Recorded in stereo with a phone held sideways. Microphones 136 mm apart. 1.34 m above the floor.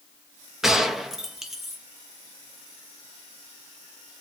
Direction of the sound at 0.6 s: 5° right (ahead or behind).